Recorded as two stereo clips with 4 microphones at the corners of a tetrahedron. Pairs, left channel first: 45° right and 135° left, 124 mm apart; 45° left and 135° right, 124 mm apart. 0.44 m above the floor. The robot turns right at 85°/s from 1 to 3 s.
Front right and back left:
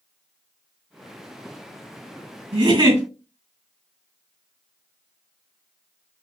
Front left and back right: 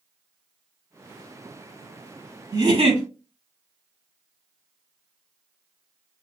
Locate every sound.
2.5 s a giggle: 165° left, 3.5 m; by 3.0 s 155° right, 3.5 m